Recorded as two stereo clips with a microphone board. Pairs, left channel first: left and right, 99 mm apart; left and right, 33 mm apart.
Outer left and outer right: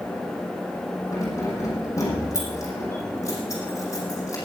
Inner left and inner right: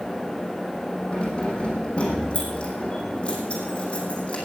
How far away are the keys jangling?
About 5 m.